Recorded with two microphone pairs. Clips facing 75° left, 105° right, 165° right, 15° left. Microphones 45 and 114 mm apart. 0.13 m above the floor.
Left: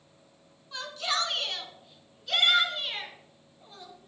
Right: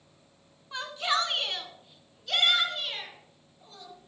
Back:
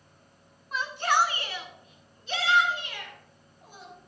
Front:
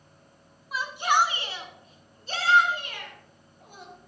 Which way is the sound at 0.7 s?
65° right.